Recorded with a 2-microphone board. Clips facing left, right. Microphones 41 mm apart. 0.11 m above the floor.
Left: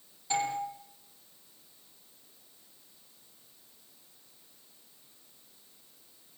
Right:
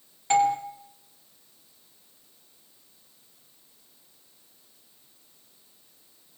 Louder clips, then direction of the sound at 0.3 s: Right 10 dB; 60° right (ahead or behind).